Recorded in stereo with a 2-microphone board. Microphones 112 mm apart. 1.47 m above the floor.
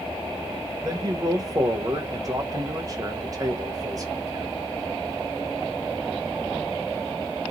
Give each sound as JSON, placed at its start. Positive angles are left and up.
{"t": 0.8, "sound": "a man speaking", "side_deg": -35, "distance_m": 0.9}